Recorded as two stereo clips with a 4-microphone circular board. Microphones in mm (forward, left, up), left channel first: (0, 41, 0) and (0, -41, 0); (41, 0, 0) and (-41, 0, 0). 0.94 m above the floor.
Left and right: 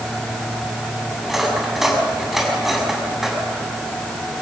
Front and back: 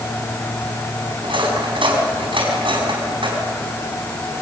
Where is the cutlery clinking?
175° right, 4.5 m.